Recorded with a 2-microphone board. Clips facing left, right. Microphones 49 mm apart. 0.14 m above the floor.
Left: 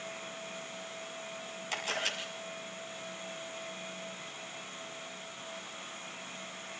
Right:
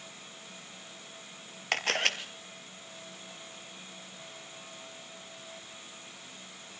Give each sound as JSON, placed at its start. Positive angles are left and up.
{"t": 1.7, "sound": "a camera shutter", "side_deg": -60, "distance_m": 1.8}